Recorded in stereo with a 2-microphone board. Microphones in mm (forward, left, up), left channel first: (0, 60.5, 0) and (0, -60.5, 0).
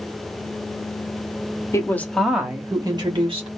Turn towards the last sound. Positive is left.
turn(degrees=-50)  # may be behind; listen again after turning